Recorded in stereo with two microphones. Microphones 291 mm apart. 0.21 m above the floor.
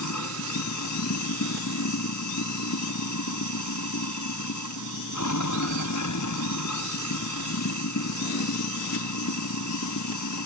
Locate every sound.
0.0 s running water: 90° left